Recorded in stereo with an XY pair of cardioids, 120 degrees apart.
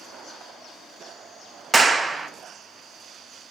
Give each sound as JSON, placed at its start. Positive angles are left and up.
{"t": 1.7, "sound": "a clap", "azimuth_deg": -20, "distance_m": 0.8}